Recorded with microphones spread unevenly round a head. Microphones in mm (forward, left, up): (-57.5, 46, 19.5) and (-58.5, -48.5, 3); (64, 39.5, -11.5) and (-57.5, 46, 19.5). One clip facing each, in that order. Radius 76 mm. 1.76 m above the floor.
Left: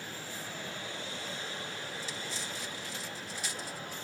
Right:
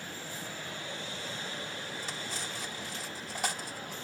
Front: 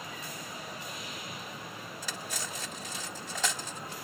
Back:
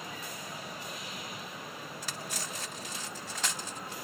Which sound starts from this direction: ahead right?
Cutlery clinking, at 2.0 s.